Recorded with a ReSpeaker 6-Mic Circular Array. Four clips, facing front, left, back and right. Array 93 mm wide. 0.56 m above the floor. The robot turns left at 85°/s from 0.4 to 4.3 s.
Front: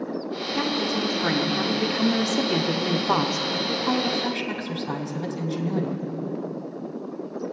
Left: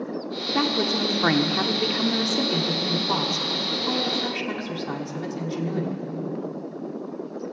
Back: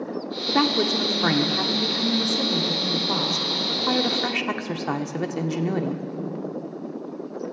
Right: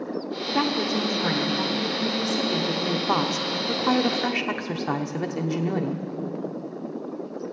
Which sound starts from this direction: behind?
A woman speaking, at 0.5 s.